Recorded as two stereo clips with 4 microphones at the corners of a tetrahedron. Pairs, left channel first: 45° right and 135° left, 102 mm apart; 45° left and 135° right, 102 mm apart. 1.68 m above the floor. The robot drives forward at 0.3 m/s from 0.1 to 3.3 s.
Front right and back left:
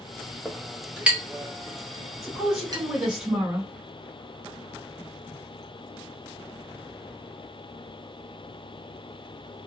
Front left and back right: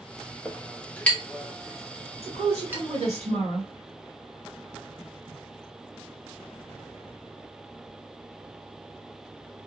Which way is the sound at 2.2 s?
130° right.